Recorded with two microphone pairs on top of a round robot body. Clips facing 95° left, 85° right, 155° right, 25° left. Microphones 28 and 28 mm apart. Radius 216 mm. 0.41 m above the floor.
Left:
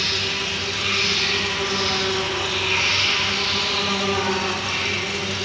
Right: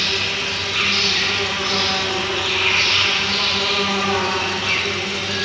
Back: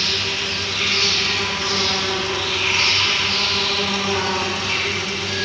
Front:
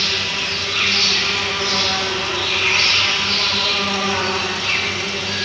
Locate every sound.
0.0 s an insect: 40° right, 5.5 m